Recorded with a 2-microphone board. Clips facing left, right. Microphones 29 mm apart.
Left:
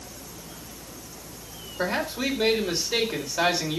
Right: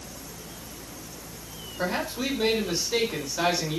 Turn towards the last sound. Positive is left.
turn(degrees=20)  # may be behind; listen again after turning